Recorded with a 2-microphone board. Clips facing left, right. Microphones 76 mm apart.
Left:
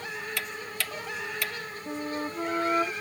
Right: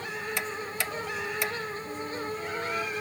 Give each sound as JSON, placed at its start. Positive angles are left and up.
{"t": 0.4, "sound": "ticking", "side_deg": -25}
{"t": 1.9, "sound": "a flute", "side_deg": 45}